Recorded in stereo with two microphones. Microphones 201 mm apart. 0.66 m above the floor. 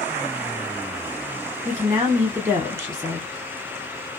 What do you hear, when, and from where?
1.6 s a woman speaking: 15° right (ahead or behind), 1.3 m